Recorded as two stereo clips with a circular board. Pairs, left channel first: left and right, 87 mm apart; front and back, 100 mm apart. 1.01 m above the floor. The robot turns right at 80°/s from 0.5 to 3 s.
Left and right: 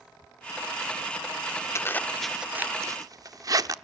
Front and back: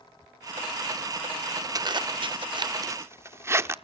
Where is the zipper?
135° left, 0.8 m; by 3.8 s 125° right, 0.8 m.